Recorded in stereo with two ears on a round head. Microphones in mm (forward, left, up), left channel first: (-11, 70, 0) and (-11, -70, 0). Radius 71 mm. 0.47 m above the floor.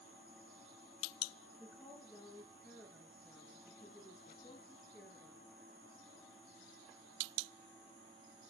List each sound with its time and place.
1.6 s a woman speaking: 5° right (ahead or behind), 7.5 m